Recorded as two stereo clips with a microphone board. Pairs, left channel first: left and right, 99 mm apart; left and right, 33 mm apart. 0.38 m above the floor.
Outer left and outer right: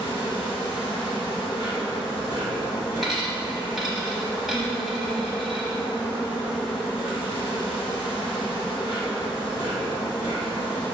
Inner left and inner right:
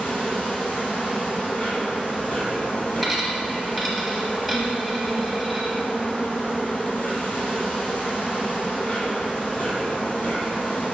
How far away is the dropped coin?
About 0.8 m.